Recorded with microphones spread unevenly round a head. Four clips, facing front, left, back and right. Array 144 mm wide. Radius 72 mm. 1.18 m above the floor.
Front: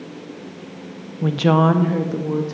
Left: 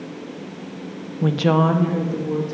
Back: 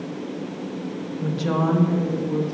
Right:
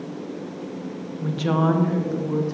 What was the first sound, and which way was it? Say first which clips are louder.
A woman speaking: left 4 dB, front 7 dB; 70° left.